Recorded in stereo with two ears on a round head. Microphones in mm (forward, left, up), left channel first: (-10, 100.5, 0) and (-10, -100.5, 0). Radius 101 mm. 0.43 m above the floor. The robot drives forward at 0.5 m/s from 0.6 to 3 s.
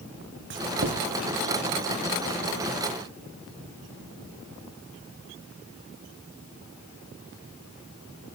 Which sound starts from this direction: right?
Writing, at 0.5 s.